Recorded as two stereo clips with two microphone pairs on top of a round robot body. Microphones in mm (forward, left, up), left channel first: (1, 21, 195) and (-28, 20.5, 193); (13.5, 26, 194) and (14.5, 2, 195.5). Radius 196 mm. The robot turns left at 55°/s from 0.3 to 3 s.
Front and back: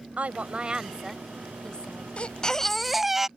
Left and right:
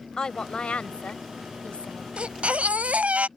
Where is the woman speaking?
145° left; by 2.1 s 50° left.